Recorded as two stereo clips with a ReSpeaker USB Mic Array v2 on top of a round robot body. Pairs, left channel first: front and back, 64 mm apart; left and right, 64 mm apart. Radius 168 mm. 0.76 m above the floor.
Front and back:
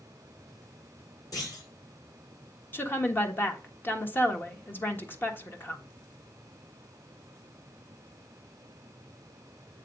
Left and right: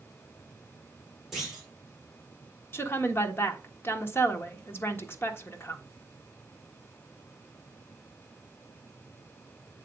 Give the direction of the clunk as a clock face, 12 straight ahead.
12 o'clock.